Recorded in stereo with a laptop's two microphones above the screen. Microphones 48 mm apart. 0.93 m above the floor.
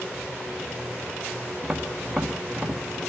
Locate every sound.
1.6 s tapping: 5° right (ahead or behind), 2.5 m